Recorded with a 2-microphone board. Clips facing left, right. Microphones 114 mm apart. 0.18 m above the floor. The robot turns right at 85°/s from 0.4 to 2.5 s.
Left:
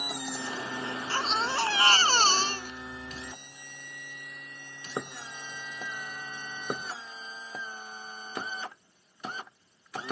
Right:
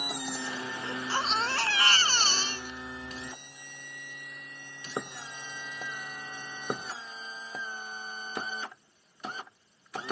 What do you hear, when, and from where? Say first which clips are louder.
0.8 s a baby crying: right 1 dB; 40° right; by 3.3 s 100° left